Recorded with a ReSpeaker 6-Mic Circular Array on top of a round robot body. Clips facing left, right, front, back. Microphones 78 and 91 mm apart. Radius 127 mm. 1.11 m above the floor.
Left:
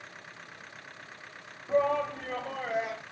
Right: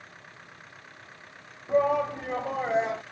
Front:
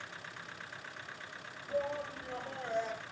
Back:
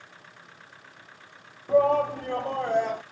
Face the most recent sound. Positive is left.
turn(degrees=-150)